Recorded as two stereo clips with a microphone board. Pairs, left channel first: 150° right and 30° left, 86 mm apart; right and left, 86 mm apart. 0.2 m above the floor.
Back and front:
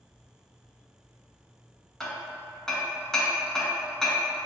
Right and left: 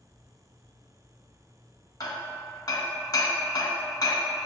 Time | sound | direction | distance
2.0 | hammering | 65° right | 0.8 m